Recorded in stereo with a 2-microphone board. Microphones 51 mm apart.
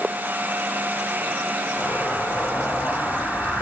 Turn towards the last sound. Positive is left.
turn(degrees=55)  # may be behind; listen again after turning